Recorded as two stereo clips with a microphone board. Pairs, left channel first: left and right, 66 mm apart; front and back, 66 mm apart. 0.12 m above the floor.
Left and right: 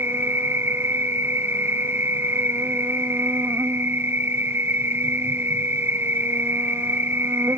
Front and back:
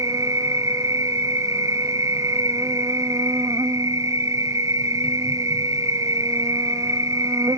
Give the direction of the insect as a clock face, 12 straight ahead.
5 o'clock.